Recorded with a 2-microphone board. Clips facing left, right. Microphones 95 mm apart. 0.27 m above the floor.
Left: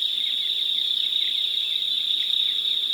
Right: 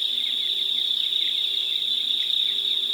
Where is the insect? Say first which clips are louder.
Even; 35° right (ahead or behind), 8 m.